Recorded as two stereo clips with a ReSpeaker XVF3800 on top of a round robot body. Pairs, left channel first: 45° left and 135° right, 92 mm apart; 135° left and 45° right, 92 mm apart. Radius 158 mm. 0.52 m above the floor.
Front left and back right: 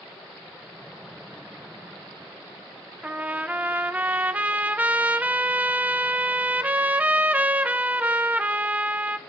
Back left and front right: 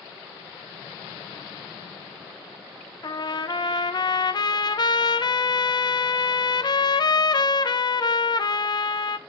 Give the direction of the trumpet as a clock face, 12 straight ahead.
7 o'clock.